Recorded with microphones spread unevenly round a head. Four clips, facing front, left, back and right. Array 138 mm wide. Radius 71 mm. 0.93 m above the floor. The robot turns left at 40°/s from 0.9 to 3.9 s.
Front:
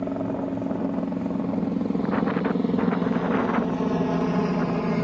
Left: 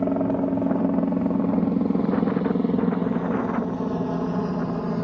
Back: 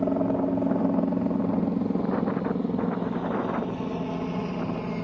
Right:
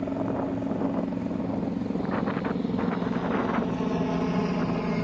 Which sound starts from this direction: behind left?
A helicopter, at 0.0 s.